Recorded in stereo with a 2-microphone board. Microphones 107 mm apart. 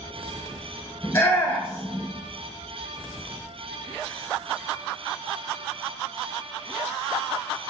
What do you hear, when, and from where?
1.0 s a shout: 25° left (ahead or behind), 1.2 m